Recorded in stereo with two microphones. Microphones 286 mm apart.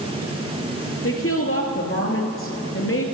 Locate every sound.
1.0 s a woman speaking: 50° left (ahead or behind), 2.5 m